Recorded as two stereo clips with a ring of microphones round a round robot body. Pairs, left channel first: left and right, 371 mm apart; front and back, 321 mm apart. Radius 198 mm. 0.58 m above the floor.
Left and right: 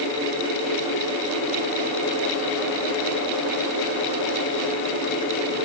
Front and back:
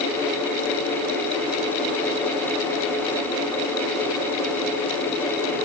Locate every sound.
Only background noise.